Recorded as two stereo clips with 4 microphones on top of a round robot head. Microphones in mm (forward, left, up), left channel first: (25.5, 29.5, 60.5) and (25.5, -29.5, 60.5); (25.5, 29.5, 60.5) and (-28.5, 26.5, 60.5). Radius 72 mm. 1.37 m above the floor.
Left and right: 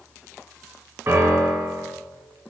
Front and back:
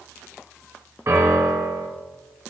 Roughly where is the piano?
Behind right.